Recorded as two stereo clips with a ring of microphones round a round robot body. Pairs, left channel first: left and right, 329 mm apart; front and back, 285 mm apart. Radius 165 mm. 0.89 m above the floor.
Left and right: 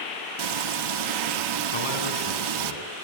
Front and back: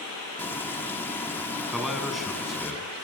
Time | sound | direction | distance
0.4 | frying | 85° right | 1.8 m
1.7 | a man speaking | 90° left | 7.5 m